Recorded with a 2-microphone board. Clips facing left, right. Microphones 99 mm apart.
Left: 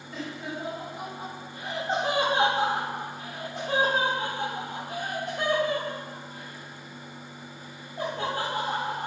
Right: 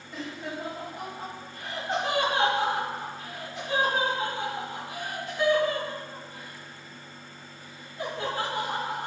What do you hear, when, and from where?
0.1 s laughter: centre (ahead or behind), 1.8 m; by 9.1 s 70° left (ahead or behind), 5.5 m